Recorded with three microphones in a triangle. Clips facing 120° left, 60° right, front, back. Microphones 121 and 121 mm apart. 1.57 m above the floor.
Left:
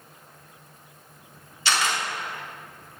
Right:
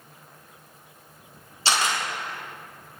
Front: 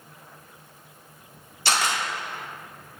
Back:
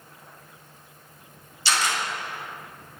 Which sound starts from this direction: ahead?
A camera shutter, at 1.6 s.